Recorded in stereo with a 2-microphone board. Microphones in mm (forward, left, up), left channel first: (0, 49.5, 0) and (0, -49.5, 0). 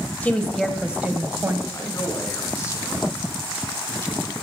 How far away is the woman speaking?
About 1.0 m.